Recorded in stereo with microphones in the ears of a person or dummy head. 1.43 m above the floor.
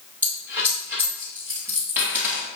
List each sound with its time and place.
0.2 s a dropped coin: 10° right (ahead or behind), 3 m